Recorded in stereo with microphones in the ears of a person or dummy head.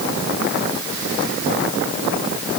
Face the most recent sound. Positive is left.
No sound to turn to.